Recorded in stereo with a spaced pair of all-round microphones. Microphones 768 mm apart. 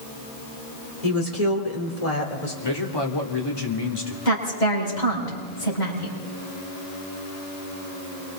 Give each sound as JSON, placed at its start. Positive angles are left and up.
{"t": 1.0, "sound": "a woman speaking", "side_deg": 50, "distance_m": 3.5}
{"t": 2.6, "sound": "a man speaking", "side_deg": 30, "distance_m": 3.0}
{"t": 4.2, "sound": "a woman speaking", "side_deg": 70, "distance_m": 7.0}